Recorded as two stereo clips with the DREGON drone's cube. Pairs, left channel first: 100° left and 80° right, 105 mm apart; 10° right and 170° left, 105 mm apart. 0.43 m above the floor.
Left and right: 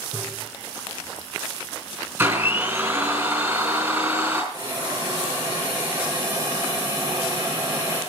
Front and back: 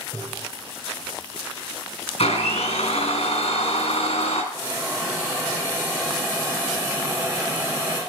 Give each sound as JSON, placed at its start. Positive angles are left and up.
{"t": 0.1, "sound": "tapping", "azimuth_deg": -140, "distance_m": 6.5}
{"t": 2.2, "sound": "a blender", "azimuth_deg": -10, "distance_m": 3.0}
{"t": 4.5, "sound": "a hiss", "azimuth_deg": -125, "distance_m": 7.0}